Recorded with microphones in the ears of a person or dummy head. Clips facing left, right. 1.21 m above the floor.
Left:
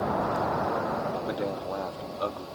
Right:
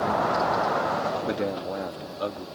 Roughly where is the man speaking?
Right.